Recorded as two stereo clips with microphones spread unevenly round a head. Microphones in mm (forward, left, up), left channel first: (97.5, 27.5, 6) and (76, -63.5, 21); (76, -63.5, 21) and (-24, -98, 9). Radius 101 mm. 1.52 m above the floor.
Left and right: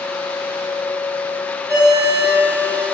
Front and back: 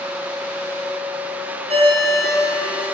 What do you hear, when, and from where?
1.7 s a ringtone: 160° left, 2.5 m